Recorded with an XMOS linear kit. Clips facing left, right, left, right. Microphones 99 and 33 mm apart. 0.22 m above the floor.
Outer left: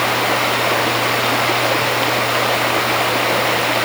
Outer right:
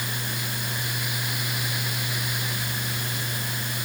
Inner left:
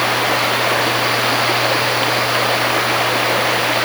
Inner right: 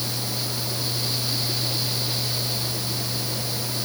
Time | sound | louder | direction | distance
0.0 | running water | outer left 17 dB, inner left 14 dB | 85° left | ?